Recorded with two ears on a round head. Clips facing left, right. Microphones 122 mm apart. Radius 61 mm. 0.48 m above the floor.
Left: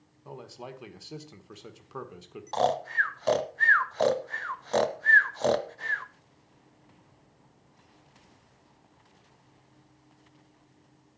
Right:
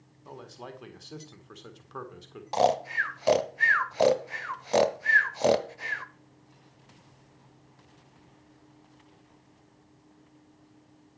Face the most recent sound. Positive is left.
turn(degrees=-15)  # may be behind; listen again after turning